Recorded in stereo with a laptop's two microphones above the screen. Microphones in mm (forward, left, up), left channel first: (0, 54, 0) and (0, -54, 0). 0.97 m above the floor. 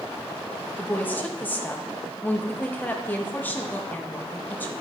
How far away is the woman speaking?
About 1.1 m.